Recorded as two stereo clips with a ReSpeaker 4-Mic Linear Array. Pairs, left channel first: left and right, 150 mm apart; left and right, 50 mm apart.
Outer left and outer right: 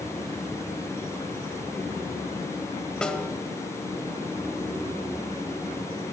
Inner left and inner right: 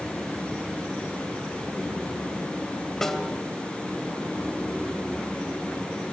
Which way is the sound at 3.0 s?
5° left (ahead or behind).